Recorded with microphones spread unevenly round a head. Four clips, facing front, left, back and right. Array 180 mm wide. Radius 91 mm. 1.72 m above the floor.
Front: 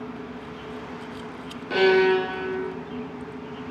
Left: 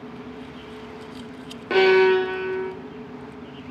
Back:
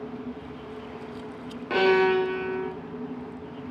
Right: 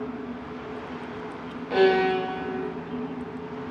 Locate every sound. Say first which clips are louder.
1.7 s a violin: left 4 dB, front 2 dB; 105° left, 3 m